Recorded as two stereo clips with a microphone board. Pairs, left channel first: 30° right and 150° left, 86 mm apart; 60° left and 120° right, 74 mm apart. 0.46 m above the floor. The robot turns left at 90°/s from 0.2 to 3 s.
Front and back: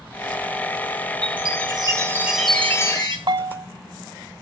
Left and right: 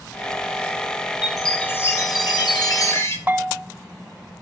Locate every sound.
1.2 s a chime: 170° left, 3 m; by 3.2 s 10° left, 3 m
3.3 s a bell: 170° left, 1.0 m